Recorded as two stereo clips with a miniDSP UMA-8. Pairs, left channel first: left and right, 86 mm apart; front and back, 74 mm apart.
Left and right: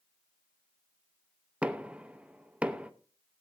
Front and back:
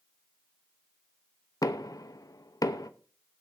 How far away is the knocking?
About 0.7 m.